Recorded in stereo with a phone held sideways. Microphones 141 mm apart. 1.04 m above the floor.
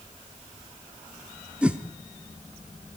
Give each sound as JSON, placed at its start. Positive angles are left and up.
{"t": 1.6, "sound": "a whoosh", "side_deg": -5, "distance_m": 0.9}